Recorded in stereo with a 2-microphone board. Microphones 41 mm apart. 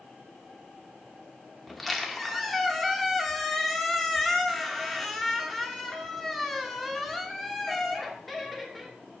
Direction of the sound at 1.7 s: 5° left (ahead or behind).